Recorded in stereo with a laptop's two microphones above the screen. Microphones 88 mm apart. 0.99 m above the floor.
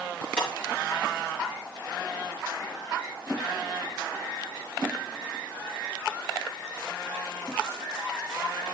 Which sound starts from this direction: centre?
Breaking glass, at 0.4 s.